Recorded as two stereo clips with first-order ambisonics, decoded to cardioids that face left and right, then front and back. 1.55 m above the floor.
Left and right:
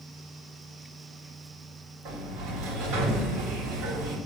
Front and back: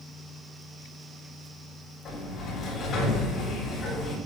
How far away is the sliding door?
About 3.5 m.